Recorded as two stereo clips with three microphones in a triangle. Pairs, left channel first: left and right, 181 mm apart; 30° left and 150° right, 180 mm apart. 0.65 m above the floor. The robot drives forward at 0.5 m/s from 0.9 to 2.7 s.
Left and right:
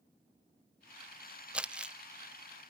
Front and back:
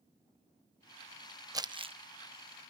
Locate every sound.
1.5 s crumpling: 160° right, 0.6 m; by 1.9 s 170° right, 0.7 m